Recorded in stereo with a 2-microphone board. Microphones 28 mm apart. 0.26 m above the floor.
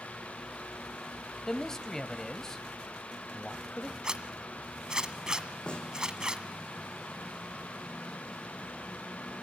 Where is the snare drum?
40° left (ahead or behind), 5.5 m.